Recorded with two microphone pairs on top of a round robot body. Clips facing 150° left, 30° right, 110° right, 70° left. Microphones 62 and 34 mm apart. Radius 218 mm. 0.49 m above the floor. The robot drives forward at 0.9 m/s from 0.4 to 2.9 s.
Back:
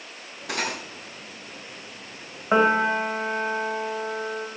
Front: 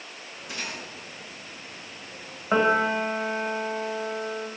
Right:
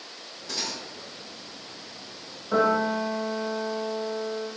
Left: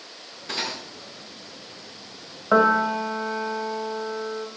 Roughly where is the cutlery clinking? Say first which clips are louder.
Back 7 dB, left 4 dB; behind left.